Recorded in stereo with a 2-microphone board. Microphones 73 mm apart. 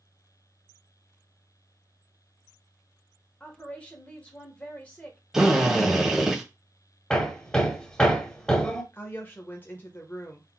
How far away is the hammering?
About 1.1 m.